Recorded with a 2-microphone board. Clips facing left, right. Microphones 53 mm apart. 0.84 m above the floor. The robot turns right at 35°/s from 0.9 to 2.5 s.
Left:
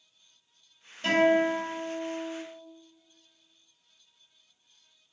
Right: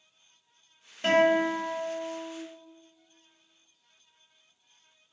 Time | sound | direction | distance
1.0 | a guitar | 35° right | 1.3 m